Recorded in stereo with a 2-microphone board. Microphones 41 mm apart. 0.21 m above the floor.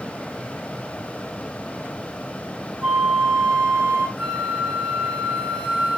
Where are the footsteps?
No footsteps in this recording.